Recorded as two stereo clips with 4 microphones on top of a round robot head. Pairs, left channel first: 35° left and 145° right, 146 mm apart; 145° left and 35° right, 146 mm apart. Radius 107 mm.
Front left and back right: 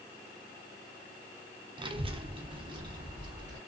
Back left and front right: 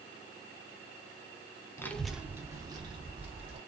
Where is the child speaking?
160° right, 0.5 m; by 3.6 s 85° right, 1.2 m.